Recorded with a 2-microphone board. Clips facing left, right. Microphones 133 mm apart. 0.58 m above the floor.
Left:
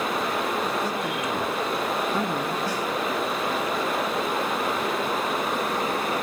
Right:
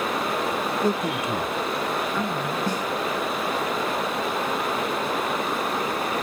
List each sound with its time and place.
0.8 s a man speaking: 55° right (ahead or behind), 1.0 m; by 2.6 s 50° left (ahead or behind), 1.5 m
2.7 s a snare drum: 20° right (ahead or behind), 4.5 m